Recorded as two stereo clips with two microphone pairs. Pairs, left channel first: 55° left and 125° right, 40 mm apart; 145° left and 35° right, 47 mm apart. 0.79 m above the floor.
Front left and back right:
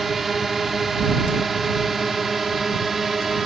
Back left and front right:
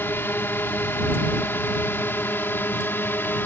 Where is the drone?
150° left.